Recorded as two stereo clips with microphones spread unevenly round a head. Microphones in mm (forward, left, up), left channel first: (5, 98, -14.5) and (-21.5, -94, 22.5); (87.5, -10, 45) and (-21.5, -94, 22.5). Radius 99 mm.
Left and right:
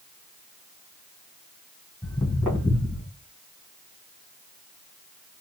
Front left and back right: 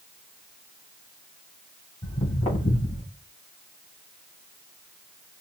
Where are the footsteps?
15° right, 3 m; by 3.0 s 10° right, 4 m.